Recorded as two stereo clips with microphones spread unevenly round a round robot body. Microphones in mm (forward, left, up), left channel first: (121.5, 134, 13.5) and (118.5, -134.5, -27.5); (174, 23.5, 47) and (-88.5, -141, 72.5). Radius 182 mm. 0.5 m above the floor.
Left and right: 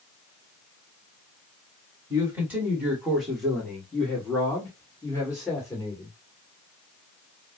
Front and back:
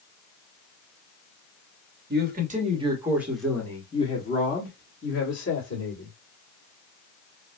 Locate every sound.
2.1 s a man speaking: 145° right, 1.3 m; by 6.1 s 10° left, 2 m